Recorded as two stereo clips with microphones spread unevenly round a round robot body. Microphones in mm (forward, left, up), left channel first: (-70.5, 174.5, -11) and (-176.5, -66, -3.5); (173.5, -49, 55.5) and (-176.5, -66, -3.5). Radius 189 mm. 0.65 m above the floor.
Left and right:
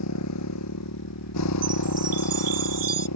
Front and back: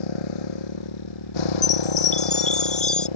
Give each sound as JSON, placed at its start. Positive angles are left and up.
{"t": 0.0, "sound": "a motorcycle", "azimuth_deg": 20}
{"t": 1.6, "sound": "a chime", "azimuth_deg": -65}